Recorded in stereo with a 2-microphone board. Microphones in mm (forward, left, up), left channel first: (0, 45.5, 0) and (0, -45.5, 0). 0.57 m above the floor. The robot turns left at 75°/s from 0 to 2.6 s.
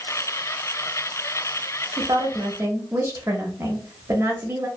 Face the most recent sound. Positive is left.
turn(degrees=-130)